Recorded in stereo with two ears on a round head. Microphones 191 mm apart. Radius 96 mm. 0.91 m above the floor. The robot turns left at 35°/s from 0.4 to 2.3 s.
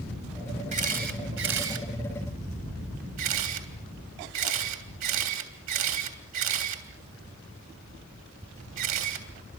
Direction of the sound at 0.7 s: 35° right (ahead or behind).